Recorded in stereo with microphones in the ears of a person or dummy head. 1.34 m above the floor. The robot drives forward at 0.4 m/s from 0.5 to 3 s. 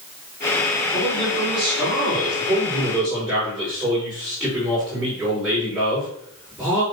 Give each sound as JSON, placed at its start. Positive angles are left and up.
{"t": 0.9, "sound": "a man speaking", "side_deg": -5, "distance_m": 4.0}